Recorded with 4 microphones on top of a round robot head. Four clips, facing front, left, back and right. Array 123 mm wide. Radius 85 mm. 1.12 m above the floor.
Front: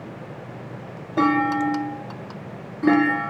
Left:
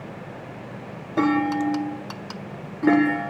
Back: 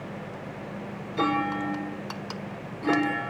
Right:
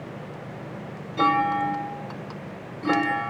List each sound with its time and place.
1.2 s a clunk: 45° left, 6.5 m